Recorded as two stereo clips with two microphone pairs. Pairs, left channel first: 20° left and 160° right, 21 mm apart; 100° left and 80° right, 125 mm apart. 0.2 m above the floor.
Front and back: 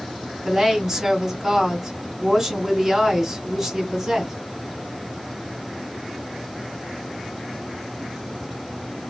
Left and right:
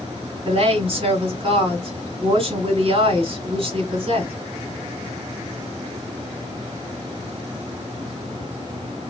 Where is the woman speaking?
80° right, 2.0 m.